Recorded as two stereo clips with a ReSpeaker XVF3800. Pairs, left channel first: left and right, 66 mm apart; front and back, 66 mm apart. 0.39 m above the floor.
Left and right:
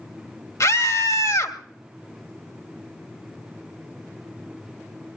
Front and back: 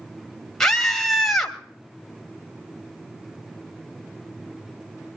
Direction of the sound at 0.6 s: 85° left.